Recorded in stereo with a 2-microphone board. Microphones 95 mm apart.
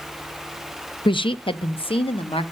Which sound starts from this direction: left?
A woman speaking, at 1.1 s.